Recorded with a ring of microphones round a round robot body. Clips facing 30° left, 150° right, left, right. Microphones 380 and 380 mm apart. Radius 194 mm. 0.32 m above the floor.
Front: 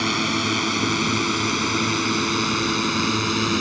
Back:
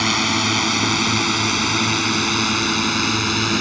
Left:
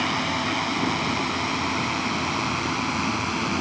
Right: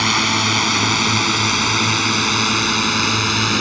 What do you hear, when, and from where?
0.0 s a drone: 80° right; by 3.6 s 75° right